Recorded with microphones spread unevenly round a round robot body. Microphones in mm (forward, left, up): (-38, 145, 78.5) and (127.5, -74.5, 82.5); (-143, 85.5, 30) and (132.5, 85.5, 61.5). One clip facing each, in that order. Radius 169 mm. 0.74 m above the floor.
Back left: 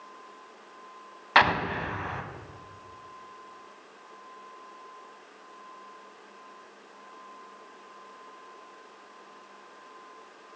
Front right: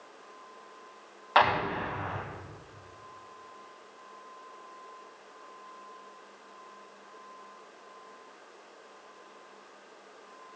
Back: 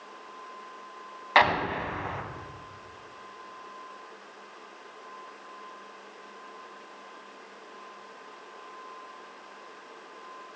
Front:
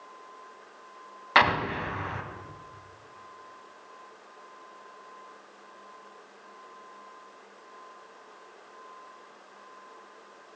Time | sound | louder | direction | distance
1.4 | an explosion | back left 1 dB, back 1 dB | 70° left | 1.6 m